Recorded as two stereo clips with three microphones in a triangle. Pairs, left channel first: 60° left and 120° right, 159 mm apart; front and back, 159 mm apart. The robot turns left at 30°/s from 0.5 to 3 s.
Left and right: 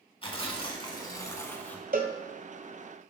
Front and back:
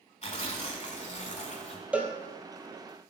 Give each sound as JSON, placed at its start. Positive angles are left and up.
{"t": 0.2, "sound": "tearing paper", "azimuth_deg": 20, "distance_m": 0.9}
{"t": 1.9, "sound": "a cowbell", "azimuth_deg": -100, "distance_m": 0.7}